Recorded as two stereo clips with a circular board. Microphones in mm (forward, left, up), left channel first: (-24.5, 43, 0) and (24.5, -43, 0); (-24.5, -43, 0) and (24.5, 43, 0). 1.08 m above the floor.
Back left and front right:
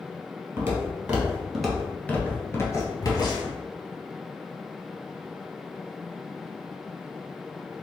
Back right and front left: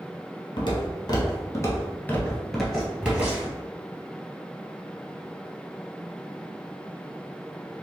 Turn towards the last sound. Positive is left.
turn(degrees=120)